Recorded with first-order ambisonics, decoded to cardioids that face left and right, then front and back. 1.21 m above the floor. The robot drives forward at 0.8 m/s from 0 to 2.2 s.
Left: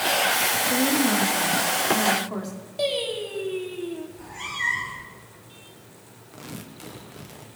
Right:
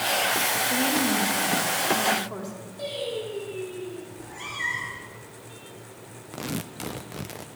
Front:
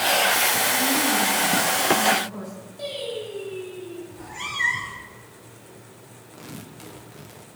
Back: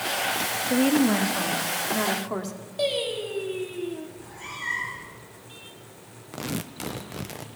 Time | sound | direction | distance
0.7 | a woman speaking | 165° left | 1.2 m
2.8 | singing | 135° left | 2.5 m
4.1 | a cat meowing | 5° left | 3.5 m
6.3 | tearing paper | 140° right | 0.6 m